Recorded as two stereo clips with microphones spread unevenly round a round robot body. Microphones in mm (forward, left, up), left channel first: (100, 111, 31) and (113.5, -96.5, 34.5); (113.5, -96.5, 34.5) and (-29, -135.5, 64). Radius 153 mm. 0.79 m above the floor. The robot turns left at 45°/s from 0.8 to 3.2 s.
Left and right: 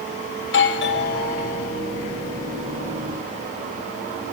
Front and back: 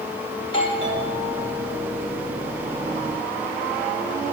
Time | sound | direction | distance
0.4 | a doorbell | 75° left | 4.5 m